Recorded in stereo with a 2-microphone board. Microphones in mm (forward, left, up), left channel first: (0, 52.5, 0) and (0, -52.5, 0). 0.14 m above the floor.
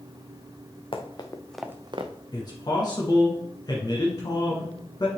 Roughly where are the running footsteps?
Left.